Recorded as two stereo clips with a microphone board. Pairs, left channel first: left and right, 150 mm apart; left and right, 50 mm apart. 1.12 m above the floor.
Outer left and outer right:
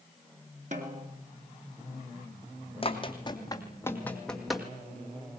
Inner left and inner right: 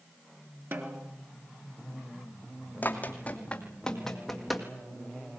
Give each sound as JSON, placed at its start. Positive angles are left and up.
{"t": 0.7, "sound": "a snare drum", "side_deg": -55, "distance_m": 3.5}
{"t": 2.8, "sound": "running footsteps", "side_deg": 40, "distance_m": 2.5}